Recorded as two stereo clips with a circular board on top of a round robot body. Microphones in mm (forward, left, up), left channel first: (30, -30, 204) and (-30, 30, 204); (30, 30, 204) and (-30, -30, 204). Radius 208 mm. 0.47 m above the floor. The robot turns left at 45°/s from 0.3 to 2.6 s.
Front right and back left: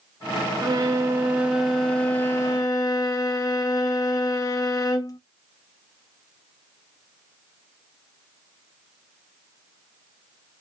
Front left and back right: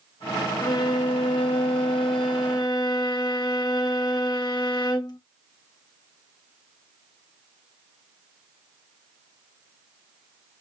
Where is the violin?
95° left, 0.8 m; by 5.2 s 5° left, 0.8 m.